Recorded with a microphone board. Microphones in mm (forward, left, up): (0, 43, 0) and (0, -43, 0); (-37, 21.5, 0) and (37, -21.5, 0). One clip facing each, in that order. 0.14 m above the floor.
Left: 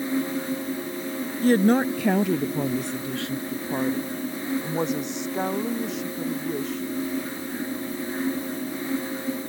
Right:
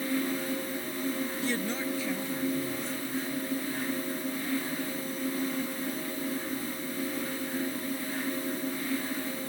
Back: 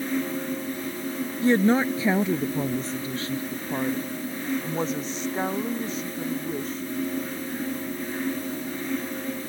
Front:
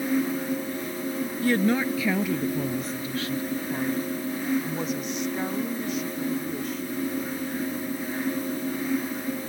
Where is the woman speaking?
95° left; by 6.9 s 90° left.